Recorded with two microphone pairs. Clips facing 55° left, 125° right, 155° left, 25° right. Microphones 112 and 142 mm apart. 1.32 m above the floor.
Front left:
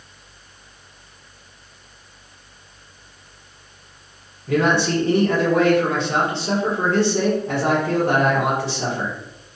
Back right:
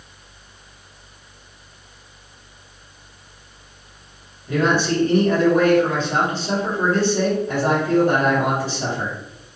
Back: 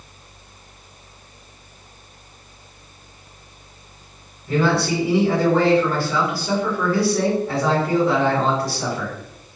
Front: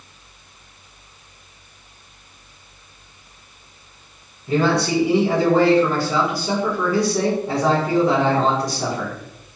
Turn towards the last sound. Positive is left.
turn(degrees=50)